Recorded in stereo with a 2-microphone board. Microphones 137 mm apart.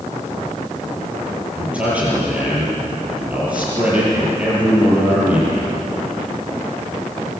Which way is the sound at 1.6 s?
10° right (ahead or behind).